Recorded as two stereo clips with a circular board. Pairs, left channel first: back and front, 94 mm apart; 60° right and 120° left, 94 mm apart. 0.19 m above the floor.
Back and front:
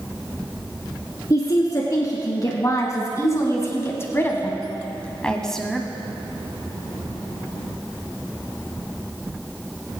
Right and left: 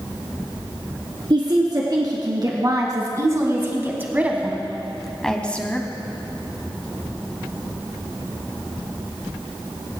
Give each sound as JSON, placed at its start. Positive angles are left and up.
{"t": 1.3, "sound": "a woman speaking", "azimuth_deg": 140, "distance_m": 2.5}